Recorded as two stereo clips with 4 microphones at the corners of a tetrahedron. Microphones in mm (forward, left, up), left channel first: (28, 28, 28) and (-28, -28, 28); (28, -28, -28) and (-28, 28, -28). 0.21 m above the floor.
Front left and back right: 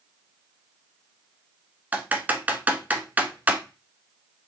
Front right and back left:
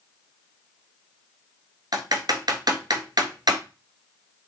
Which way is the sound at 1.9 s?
155° left.